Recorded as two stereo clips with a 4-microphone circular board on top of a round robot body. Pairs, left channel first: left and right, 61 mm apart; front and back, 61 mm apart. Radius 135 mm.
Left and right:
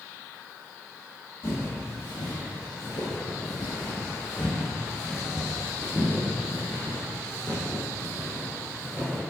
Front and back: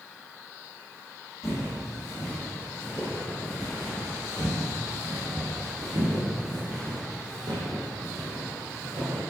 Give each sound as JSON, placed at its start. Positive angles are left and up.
{"t": 1.4, "sound": "footsteps", "azimuth_deg": 40, "distance_m": 1.7}